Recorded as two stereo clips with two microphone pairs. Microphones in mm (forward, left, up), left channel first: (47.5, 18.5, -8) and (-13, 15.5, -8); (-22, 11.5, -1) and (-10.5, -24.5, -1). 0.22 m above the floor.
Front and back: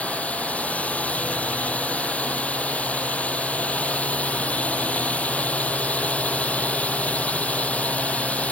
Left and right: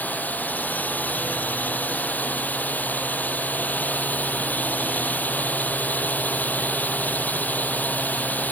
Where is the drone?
70° left.